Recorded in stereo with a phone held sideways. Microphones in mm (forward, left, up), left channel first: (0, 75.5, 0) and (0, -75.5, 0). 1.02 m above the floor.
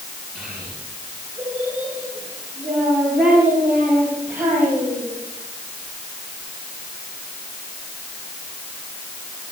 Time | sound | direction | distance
0.3 | a child speaking | centre (ahead or behind) | 9.5 m